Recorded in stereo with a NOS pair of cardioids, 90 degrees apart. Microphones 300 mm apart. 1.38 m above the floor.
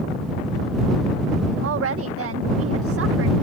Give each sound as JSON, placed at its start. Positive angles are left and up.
{"t": 1.6, "sound": "a woman speaking", "azimuth_deg": -50}